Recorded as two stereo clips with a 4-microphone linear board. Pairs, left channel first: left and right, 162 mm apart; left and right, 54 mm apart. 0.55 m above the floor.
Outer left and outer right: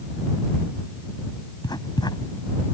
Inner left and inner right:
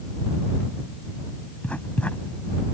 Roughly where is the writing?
Left.